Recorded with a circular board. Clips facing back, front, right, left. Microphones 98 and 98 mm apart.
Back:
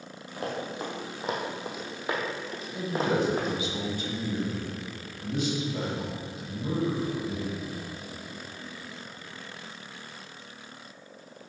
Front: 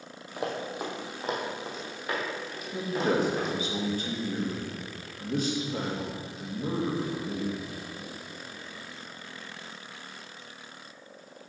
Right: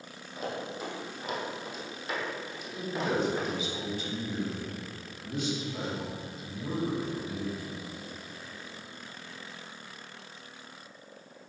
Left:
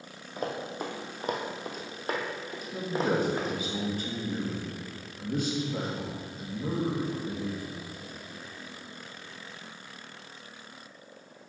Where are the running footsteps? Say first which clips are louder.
Front 1 dB, left 2 dB; 65° left, 1.7 m; by 3.6 s 140° left, 2.5 m.